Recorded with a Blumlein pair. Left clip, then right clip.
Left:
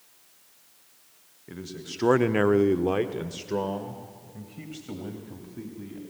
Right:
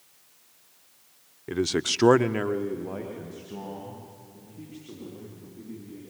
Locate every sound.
1.5 s a man speaking: 65° right, 0.9 m; by 6.0 s 65° left, 4.5 m